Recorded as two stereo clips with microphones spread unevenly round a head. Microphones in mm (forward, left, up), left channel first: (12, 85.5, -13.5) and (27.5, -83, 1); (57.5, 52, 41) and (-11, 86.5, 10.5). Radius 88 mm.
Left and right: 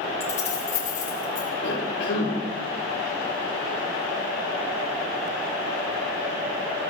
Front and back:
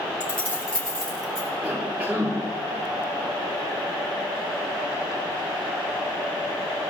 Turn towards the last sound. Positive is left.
turn(degrees=80)